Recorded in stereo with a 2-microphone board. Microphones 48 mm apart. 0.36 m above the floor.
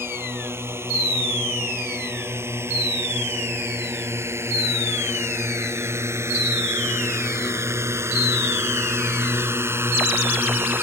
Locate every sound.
0.0 s a drone: 65° right (ahead or behind); by 10.8 s 50° right (ahead or behind)